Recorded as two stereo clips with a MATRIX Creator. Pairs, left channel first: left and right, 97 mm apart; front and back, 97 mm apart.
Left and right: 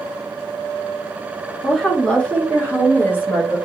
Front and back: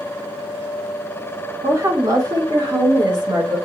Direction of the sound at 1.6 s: 175° left.